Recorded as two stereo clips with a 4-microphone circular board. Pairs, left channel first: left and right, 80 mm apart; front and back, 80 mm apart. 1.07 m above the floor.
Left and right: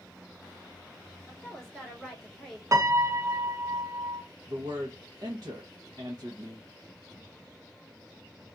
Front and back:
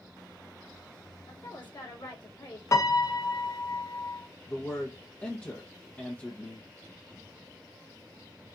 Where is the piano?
45° right, 0.6 m.